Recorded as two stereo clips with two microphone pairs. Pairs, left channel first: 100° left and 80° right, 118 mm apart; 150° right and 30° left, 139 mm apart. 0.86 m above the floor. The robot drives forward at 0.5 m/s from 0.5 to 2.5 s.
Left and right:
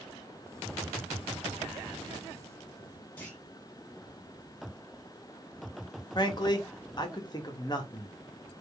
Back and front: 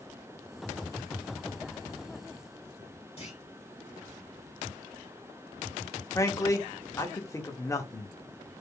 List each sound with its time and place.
3.2 s a clunk: 175° left, 2 m
6.2 s a man speaking: 145° left, 1.0 m